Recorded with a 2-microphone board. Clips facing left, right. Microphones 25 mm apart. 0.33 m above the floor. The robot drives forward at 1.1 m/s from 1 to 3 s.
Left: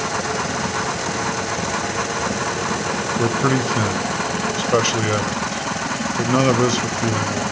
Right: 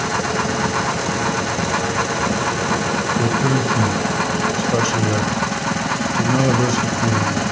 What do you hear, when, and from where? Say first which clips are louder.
3.2 s a man speaking: left 2 dB; 30° left (ahead or behind), 1.2 m